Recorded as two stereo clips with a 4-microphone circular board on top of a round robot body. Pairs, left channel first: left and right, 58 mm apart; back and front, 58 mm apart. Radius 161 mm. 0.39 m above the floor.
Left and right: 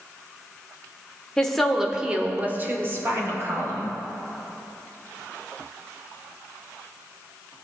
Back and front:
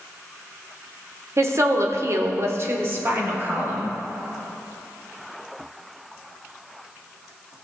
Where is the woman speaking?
15° left, 1.8 m; by 4.0 s 60° right, 3.5 m.